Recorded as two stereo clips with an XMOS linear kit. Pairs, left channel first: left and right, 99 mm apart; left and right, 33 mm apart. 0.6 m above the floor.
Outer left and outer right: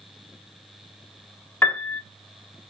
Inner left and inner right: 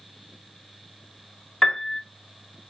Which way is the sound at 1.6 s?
20° left (ahead or behind).